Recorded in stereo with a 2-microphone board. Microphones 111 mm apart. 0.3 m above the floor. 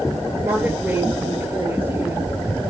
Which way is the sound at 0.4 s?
15° right (ahead or behind).